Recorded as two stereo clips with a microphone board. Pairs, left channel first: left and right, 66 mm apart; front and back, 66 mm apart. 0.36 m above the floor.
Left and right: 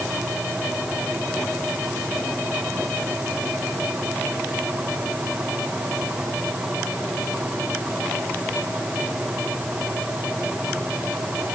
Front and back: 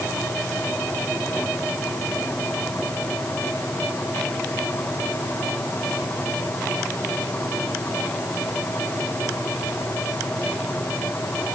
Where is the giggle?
I don't hear a giggle.